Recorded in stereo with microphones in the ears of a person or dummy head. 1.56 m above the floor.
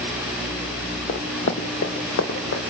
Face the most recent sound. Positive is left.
turn(degrees=70)  # may be behind; listen again after turning